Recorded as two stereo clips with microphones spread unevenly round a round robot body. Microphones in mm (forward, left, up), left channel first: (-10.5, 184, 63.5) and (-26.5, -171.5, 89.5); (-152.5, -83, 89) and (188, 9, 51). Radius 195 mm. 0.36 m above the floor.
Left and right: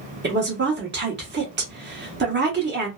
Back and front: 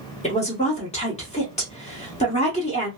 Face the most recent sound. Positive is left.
turn(degrees=-105)